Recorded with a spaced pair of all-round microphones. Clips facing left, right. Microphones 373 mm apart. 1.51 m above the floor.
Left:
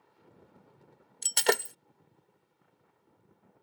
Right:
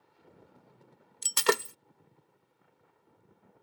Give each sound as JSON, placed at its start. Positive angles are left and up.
{"t": 1.2, "sound": "breaking glass", "side_deg": -15}